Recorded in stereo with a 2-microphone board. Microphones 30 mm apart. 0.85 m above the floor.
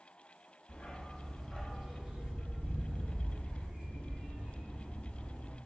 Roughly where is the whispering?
I don't hear whispering.